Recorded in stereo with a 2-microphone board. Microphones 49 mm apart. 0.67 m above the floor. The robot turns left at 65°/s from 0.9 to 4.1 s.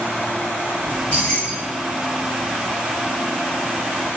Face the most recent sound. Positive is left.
turn(degrees=-75)